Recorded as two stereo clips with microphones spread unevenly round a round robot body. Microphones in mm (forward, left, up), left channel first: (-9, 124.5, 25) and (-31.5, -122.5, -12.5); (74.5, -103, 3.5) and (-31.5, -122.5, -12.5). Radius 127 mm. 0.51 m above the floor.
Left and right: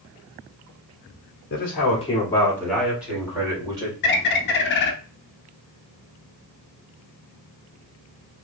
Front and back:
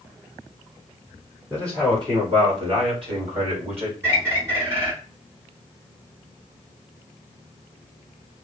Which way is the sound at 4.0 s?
115° left.